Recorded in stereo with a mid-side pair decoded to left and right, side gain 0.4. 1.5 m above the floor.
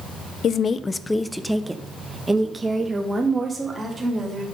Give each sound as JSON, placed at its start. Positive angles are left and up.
{"t": 0.4, "sound": "a woman speaking", "azimuth_deg": 65, "distance_m": 0.7}